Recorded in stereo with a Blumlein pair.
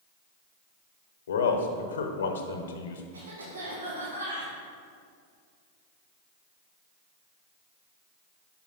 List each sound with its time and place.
1.3 s a man speaking: 65° left, 0.8 m
3.1 s a cough: 70° right, 1.7 m